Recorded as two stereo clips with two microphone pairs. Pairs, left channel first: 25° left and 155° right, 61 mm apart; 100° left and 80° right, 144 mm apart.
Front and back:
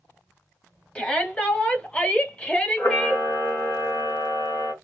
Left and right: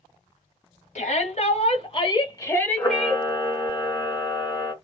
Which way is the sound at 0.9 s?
90° left.